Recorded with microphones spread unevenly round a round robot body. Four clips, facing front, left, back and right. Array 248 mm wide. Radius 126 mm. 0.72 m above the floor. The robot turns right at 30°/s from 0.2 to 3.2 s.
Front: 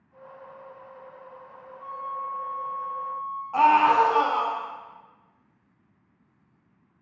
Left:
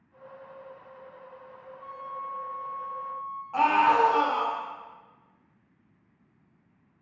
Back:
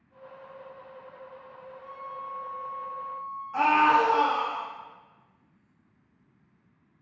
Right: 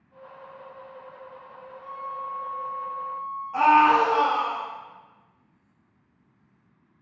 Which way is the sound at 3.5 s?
15° left.